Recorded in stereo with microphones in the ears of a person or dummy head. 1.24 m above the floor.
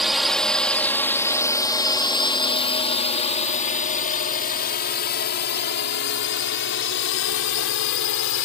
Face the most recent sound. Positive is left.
turn(degrees=65)  # may be behind; listen again after turning